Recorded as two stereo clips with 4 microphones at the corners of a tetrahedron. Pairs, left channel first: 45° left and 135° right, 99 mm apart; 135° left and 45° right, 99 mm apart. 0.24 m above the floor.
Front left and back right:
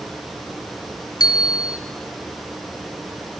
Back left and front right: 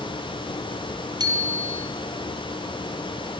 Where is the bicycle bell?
Straight ahead, 3.5 m.